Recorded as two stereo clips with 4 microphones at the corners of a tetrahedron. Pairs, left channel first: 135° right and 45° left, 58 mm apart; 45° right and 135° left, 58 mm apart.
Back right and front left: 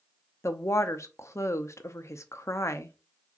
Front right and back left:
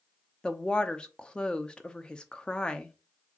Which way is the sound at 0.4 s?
115° right.